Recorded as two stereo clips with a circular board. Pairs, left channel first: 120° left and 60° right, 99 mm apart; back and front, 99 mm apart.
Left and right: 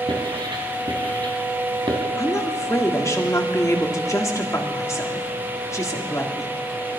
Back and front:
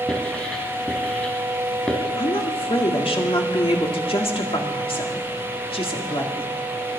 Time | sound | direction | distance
0.1 | writing | 95° right | 3 m
2.2 | a woman speaking | 175° left | 2 m